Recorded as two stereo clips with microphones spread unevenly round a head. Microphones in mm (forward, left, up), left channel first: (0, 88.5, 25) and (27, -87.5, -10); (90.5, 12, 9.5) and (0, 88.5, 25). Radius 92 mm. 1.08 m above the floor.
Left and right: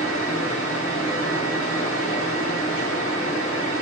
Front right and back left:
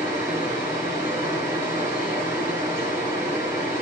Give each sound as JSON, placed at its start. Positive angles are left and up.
{"t": 0.0, "sound": "a fan", "azimuth_deg": 150, "distance_m": 2.0}